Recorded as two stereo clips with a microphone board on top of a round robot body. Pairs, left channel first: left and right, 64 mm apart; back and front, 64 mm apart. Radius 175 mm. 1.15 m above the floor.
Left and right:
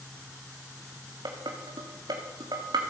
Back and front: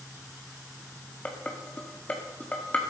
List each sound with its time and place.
1.2 s dishes clattering: 110° right, 1.6 m